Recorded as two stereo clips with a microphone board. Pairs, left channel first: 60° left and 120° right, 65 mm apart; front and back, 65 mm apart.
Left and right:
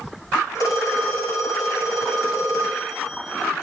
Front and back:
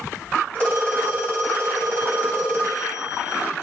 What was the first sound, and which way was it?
A phone ringing, 65° left.